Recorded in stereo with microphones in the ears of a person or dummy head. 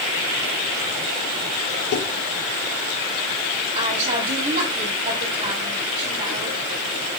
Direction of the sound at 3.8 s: 40° right (ahead or behind).